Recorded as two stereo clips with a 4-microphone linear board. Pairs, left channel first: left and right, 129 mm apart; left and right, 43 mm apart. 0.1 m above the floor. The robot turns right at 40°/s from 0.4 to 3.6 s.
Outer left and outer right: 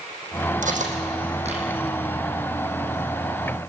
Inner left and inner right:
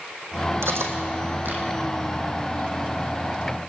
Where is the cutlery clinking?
75° right (ahead or behind), 3 m; by 1.6 s 50° right (ahead or behind), 3 m.